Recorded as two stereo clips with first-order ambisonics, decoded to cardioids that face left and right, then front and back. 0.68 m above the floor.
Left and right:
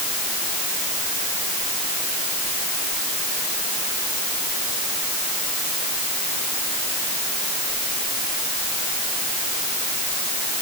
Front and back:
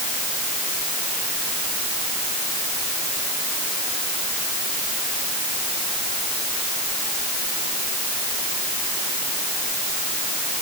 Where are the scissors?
I don't hear scissors.